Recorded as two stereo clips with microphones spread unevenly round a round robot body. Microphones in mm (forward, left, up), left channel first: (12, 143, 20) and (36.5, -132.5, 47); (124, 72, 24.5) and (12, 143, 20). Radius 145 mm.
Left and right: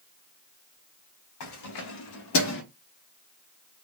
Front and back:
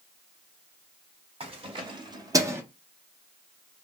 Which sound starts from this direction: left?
Keys jangling, at 1.4 s.